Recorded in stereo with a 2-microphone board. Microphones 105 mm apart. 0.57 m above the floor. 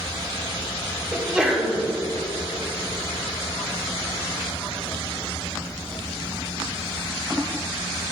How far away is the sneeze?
About 1.4 m.